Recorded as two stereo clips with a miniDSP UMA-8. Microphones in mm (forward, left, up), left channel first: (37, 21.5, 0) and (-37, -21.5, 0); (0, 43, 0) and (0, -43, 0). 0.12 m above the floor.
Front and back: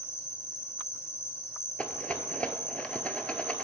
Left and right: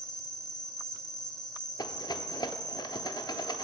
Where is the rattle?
105° left, 0.6 m.